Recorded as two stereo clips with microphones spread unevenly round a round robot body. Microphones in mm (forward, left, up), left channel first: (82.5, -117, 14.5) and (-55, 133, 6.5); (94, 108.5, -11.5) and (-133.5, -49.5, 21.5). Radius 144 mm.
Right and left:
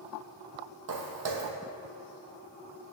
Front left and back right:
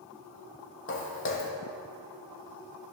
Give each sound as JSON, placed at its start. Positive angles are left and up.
{"t": 0.9, "sound": "footsteps", "azimuth_deg": 85, "distance_m": 0.9}